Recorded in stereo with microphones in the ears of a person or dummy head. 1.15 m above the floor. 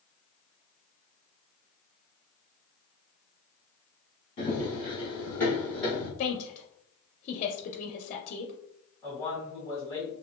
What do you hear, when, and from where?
4.4 s running footsteps: 35° left (ahead or behind), 1.6 m; by 6.1 s centre (ahead or behind), 2 m
6.2 s a woman speaking: 40° left (ahead or behind), 0.6 m
9.0 s a man speaking: 15° left (ahead or behind), 1.9 m